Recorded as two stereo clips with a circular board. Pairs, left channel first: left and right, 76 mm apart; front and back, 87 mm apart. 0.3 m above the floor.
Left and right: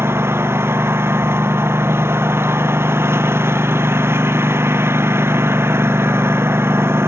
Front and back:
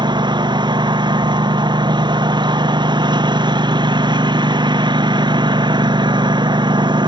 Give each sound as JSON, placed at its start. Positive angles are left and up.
{"t": 0.0, "sound": "a lawn mower", "azimuth_deg": -150}